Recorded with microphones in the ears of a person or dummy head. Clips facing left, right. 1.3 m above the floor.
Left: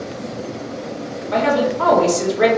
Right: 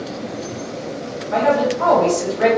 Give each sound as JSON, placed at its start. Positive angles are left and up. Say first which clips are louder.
{"t": 1.3, "sound": "a woman speaking", "louder": "right 1 dB", "side_deg": 50, "distance_m": 1.1}